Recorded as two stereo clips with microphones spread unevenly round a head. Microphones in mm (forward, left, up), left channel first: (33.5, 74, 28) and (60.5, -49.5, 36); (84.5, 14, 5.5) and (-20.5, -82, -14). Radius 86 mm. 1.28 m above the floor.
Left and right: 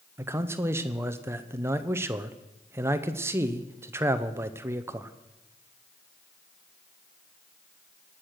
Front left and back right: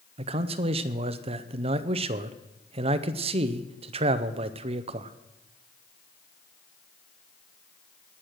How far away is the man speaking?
About 0.6 m.